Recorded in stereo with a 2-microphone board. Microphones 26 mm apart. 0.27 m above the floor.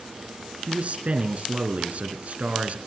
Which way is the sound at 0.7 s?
60° right (ahead or behind).